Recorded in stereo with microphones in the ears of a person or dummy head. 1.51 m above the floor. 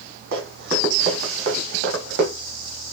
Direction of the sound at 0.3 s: 65° right (ahead or behind).